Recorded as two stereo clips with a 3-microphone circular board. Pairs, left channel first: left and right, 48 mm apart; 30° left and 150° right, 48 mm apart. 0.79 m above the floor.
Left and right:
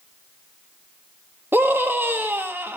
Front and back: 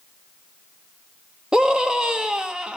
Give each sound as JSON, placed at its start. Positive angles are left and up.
{"t": 1.5, "sound": "a scream", "azimuth_deg": -80, "distance_m": 1.4}